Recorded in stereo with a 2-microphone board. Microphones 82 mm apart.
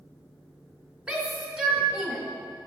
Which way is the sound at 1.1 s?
10° right (ahead or behind).